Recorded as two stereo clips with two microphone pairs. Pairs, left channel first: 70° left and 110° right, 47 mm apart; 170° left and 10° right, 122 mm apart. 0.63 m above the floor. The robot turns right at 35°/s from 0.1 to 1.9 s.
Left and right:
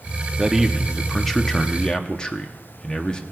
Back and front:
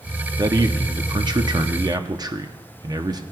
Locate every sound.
0.4 s a man speaking: 40° right, 0.7 m; by 3.2 s 15° left, 0.7 m